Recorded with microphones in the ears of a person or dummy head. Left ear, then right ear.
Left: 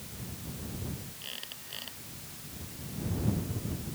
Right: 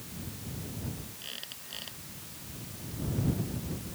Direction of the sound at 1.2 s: 5° left (ahead or behind).